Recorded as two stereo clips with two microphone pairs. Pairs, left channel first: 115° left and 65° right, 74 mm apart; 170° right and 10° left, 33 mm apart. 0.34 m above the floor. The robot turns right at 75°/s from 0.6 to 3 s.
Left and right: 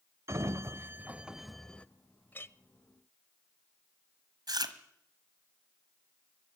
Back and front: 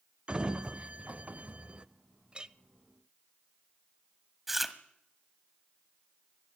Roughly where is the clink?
Ahead left.